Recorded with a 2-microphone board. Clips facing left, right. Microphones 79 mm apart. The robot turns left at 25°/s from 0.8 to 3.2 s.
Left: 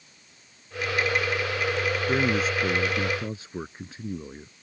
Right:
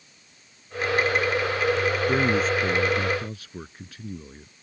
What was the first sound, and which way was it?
A man speaking, 5° right (ahead or behind).